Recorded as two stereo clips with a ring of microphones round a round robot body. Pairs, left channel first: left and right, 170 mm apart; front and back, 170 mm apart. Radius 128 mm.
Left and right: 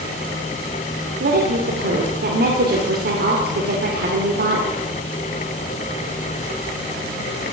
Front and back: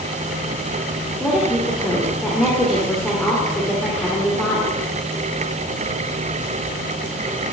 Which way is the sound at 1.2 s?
90° right.